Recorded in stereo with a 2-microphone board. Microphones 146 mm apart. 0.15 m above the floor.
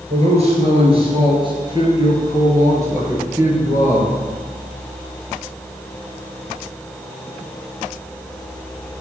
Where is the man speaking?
45° right (ahead or behind), 3 m; by 4.2 s 5° right (ahead or behind), 3 m.